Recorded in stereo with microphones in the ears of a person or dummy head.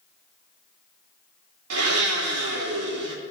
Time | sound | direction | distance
1.7 | a blender | 80° right | 3.5 m